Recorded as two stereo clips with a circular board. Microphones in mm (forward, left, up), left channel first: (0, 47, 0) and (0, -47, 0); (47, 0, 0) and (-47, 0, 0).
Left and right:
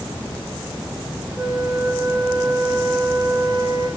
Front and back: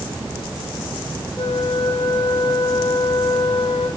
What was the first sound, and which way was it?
A flute, 40° right.